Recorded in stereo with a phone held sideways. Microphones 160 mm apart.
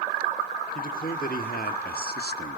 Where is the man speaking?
60° left (ahead or behind), 2.5 m; by 2.6 s 75° left (ahead or behind), 0.9 m.